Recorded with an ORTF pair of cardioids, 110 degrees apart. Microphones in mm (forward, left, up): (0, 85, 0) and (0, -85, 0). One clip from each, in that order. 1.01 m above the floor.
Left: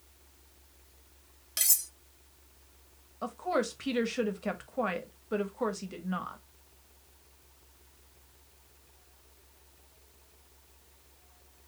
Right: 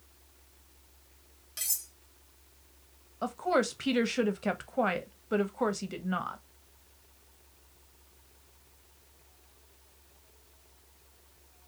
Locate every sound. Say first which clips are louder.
1.6 s cutlery clinking: left 6 dB; 40° left, 0.5 m
3.2 s a woman speaking: right 3 dB; 20° right, 0.7 m